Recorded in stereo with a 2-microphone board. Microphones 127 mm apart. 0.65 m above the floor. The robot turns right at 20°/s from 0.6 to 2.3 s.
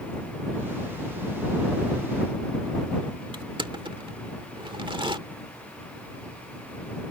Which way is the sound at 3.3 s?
40° right (ahead or behind).